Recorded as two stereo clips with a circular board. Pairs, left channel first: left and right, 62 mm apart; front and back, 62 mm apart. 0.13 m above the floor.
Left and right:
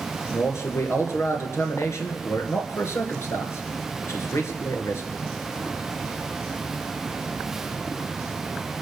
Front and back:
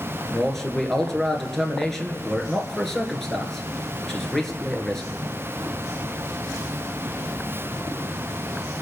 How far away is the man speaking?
About 2.0 m.